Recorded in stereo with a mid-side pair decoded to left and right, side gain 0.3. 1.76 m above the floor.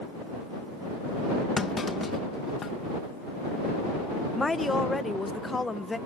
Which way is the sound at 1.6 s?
55° left.